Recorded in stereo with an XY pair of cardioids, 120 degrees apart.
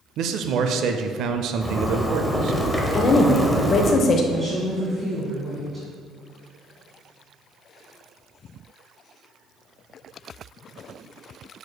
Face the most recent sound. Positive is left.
turn(degrees=-20)